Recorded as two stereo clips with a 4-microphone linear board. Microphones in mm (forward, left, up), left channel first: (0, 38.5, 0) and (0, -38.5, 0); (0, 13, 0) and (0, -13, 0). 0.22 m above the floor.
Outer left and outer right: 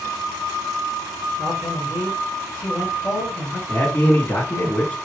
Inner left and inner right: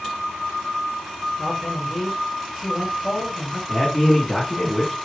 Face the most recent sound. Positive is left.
turn(degrees=25)  # may be behind; listen again after turning